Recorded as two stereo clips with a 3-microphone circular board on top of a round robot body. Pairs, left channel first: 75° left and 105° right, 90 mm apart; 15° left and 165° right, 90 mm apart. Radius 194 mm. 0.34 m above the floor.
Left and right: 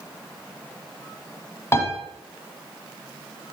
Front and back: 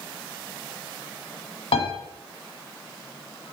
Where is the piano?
15° left, 1.5 m.